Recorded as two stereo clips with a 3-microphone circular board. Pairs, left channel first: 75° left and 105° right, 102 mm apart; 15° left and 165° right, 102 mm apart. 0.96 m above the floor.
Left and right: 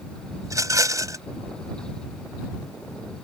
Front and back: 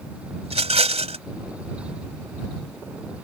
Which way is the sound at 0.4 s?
160° right.